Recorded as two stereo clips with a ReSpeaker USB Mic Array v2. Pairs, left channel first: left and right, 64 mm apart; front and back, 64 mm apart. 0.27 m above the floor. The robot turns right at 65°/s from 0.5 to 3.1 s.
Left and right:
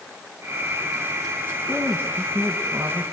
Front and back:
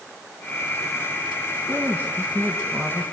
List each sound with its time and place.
1.7 s a woman speaking: 150° right, 2.5 m; by 3.0 s 65° right, 2.5 m